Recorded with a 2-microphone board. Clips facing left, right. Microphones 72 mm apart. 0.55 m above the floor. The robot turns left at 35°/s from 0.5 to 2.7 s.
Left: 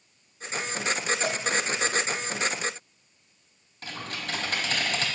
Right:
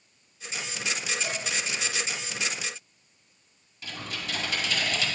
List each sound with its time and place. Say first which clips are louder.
1.2 s dishes clattering: left 4 dB; 70° left (ahead or behind), 1.4 m; by 1.4 s 75° left (ahead or behind), 1.4 m
3.8 s typing on a keyboard: left 1 dB; 45° left (ahead or behind), 3 m